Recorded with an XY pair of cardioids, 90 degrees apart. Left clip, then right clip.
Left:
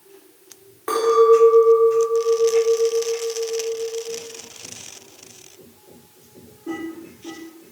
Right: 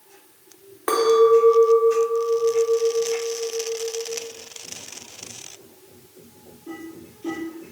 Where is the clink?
40° right, 2 m.